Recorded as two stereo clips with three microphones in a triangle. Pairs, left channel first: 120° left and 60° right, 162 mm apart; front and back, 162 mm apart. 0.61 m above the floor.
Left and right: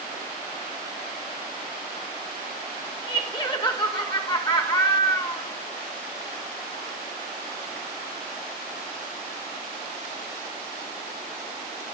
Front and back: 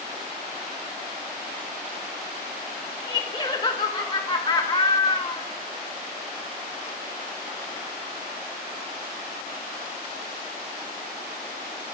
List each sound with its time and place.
3.1 s laughter: 60° left, 2 m